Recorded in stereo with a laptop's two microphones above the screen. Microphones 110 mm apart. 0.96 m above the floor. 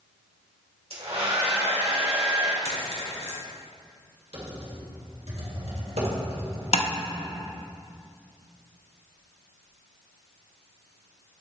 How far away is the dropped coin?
About 2 m.